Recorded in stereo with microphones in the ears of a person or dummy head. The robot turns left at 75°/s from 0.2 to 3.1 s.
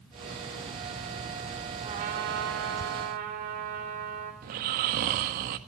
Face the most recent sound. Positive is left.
turn(degrees=-50)  # may be behind; listen again after turning